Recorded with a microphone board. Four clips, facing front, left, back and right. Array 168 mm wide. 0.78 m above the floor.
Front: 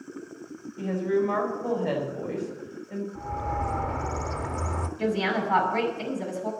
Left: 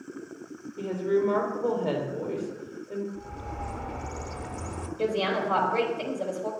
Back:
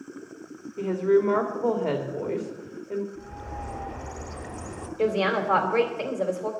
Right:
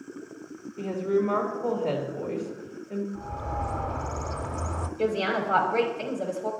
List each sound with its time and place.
0.8 s a woman speaking: 165° left, 2.5 m
3.1 s a bird: 30° right, 0.9 m
5.0 s a woman speaking: 170° left, 3 m